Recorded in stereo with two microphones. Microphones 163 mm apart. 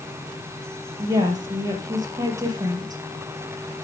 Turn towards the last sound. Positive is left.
turn(degrees=-25)  # may be behind; listen again after turning